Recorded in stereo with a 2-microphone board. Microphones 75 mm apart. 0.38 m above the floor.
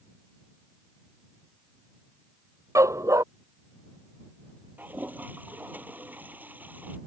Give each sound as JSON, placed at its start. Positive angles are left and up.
{"t": 2.8, "sound": "a dog barking", "side_deg": -45}
{"t": 4.8, "sound": "a toilet flushing", "side_deg": -25}